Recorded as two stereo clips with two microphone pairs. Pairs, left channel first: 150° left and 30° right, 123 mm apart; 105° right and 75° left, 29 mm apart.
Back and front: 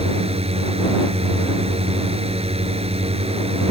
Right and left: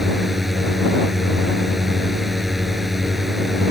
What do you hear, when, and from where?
0.0 s a drone: 10° right